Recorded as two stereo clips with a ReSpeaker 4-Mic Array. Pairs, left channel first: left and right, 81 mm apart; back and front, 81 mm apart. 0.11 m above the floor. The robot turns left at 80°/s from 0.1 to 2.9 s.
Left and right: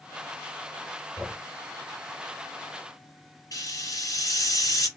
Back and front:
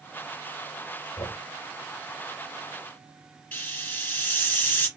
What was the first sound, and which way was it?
Knocking, 160° right.